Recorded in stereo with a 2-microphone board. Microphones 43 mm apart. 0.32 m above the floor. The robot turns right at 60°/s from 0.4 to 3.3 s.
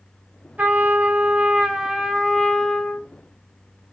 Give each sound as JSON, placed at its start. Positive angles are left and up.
{"t": 0.6, "sound": "a trumpet", "azimuth_deg": -100, "distance_m": 0.5}